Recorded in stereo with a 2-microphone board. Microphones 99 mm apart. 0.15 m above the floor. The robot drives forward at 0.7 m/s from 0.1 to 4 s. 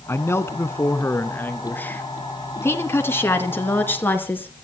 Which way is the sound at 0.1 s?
25° left (ahead or behind).